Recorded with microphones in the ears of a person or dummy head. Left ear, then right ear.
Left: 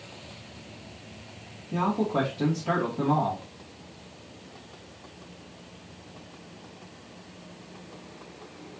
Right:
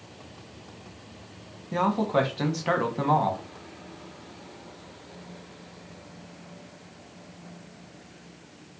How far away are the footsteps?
No footsteps in this recording.